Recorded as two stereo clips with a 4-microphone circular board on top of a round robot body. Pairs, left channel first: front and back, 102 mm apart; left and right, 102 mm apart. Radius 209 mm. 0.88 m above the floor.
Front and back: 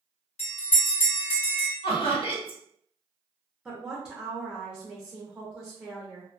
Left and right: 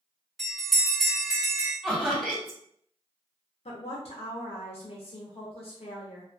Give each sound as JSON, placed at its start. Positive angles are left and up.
{"t": 0.4, "sound": "a bell", "azimuth_deg": -5, "distance_m": 1.5}
{"t": 1.8, "sound": "laughter", "azimuth_deg": 0, "distance_m": 1.7}
{"t": 3.6, "sound": "a woman speaking", "azimuth_deg": 100, "distance_m": 0.6}